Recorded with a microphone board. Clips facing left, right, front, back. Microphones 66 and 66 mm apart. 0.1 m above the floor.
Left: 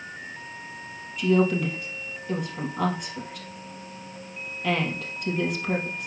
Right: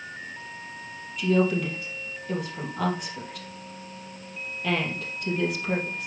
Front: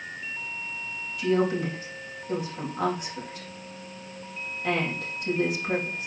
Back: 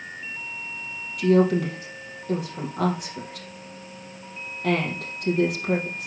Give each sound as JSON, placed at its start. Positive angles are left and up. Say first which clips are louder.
{"t": 1.2, "sound": "a woman speaking", "louder": "left 1 dB, back 5 dB", "azimuth_deg": 180, "distance_m": 3.0}